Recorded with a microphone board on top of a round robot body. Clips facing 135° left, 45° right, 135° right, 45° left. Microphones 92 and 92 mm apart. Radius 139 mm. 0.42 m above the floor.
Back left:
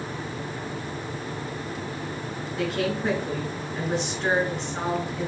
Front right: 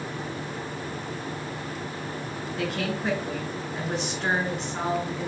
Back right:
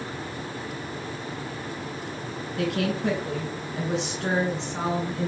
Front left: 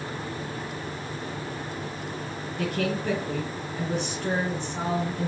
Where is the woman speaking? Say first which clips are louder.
Back left 3 dB, back right 2 dB; 130° right, 4 m.